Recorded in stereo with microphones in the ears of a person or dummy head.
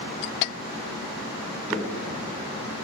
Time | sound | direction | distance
1.7 | footsteps | 10° right (ahead or behind) | 4 m